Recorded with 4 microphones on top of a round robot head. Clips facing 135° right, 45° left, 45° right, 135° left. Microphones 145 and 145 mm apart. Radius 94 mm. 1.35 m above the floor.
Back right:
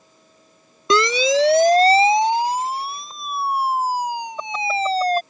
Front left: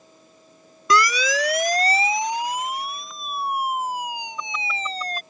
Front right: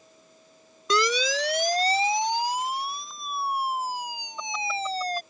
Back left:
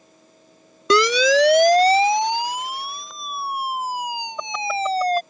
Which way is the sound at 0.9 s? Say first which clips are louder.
Back right 4 dB, back left 9 dB; 160° left.